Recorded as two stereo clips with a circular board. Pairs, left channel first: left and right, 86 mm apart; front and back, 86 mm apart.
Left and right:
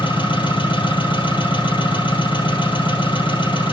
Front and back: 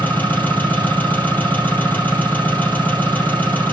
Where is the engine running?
70° left, 4 m.